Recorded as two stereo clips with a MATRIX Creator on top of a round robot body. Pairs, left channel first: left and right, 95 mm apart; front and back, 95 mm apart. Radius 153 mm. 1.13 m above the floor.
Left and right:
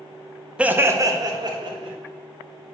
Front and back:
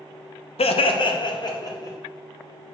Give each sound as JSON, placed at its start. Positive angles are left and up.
{"t": 0.6, "sound": "laughter", "azimuth_deg": -10, "distance_m": 0.9}